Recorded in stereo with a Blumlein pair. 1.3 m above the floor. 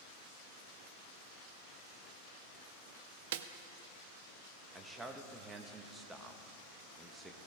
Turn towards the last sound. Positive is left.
turn(degrees=-10)